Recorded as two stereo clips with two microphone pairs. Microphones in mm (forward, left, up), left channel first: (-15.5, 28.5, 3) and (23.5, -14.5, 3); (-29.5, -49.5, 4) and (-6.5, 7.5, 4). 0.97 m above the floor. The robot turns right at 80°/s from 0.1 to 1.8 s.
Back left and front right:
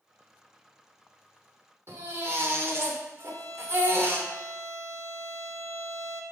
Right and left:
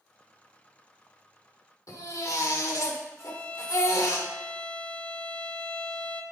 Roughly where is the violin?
Ahead right.